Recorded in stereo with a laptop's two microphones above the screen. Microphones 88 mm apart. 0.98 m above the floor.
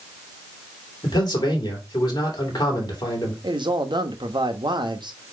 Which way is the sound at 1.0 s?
50° left (ahead or behind).